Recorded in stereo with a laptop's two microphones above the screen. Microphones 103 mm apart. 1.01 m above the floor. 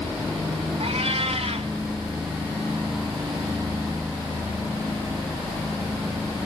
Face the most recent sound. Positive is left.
turn(degrees=-85)